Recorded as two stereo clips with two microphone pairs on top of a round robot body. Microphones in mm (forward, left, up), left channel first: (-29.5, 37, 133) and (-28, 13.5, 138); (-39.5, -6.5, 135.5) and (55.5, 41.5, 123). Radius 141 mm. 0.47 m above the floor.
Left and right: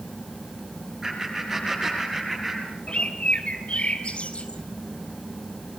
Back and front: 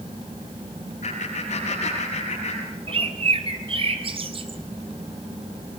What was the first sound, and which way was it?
Laughter, 160° right.